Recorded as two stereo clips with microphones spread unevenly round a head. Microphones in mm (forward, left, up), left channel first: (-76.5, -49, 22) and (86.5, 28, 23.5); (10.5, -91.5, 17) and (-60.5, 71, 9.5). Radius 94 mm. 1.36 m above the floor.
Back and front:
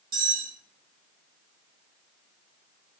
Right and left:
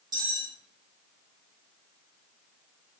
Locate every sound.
0.1 s cutlery clinking: 45° left, 0.9 m